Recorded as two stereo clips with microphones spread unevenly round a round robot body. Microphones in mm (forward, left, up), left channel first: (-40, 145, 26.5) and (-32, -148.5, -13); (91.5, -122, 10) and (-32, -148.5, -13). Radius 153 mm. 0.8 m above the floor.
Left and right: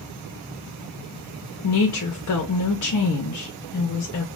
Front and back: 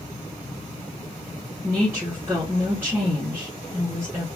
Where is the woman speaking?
125° left, 0.8 m.